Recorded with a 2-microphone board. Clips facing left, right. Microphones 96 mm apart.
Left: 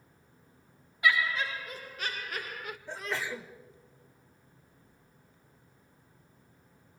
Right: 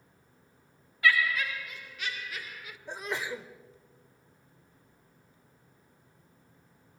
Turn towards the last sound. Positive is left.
turn(degrees=-15)  # may be behind; listen again after turning